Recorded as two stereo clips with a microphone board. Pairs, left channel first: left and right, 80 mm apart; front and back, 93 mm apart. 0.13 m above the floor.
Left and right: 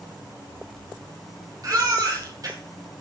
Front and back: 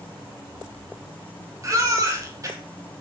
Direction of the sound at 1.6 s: 130° right.